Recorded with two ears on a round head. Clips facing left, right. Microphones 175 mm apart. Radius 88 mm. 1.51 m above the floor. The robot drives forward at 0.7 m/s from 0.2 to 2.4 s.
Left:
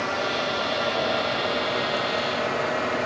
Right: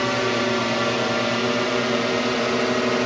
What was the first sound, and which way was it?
A drone, 70° right (ahead or behind).